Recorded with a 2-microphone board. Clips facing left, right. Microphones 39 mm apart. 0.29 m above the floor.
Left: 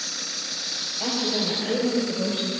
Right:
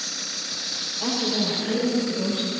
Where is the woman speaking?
50° left (ahead or behind), 4.5 m; by 2.5 s 60° left (ahead or behind), 6 m.